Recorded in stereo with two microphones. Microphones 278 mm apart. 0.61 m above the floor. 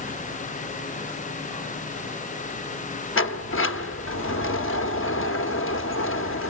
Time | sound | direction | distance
3.1 | a sliding door | 50° left (ahead or behind) | 1.1 m